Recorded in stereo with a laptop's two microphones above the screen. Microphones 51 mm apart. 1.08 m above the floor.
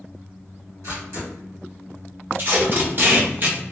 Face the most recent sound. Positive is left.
turn(degrees=-40)  # may be behind; listen again after turning